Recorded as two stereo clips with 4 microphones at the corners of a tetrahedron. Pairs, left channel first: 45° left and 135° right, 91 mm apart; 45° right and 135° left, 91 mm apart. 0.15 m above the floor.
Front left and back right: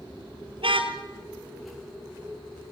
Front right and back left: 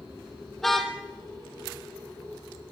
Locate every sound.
0.6 s a car horn: 130° right, 2.5 m